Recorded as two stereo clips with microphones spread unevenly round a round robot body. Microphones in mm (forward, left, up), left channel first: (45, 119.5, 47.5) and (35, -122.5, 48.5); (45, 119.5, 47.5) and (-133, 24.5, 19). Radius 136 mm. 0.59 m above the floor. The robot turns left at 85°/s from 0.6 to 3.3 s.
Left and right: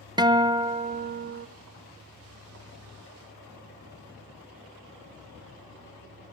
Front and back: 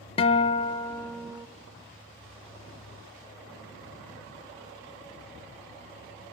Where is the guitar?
25° right, 0.5 m; by 1.5 s 100° right, 0.5 m.